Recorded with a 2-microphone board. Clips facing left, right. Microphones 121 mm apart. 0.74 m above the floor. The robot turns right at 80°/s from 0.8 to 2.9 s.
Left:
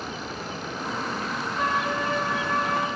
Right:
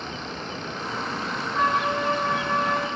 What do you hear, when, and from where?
1.5 s a trumpet: 80° right, 8.5 m; by 2.9 s 25° left, 8.5 m